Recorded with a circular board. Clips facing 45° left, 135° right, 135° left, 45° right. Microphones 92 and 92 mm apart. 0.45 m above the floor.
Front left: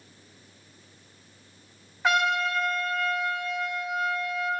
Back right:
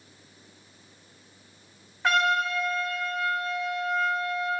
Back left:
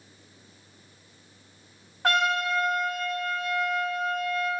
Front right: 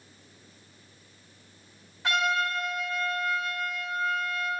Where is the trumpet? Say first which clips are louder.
Even, back left 2 dB; 135° left, 1.8 m.